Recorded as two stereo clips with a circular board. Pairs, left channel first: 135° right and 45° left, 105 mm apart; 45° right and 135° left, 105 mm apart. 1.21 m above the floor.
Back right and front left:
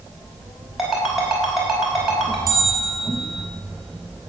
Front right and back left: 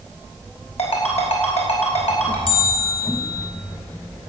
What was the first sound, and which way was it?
A ringtone, 40° right.